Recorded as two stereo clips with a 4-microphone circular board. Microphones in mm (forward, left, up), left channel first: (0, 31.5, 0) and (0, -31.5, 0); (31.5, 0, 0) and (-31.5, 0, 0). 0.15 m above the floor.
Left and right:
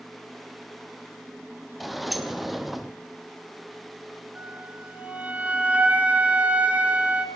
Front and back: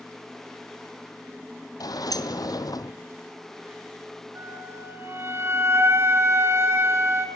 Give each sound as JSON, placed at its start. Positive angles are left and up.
{"t": 1.8, "sound": "a sliding door", "azimuth_deg": 0, "distance_m": 1.2}
{"t": 4.3, "sound": "a flute", "azimuth_deg": -150, "distance_m": 2.0}